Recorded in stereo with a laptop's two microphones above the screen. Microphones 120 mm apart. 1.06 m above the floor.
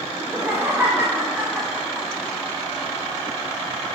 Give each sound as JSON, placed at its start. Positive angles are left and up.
{"t": 0.2, "sound": "laughter", "side_deg": -30, "distance_m": 1.4}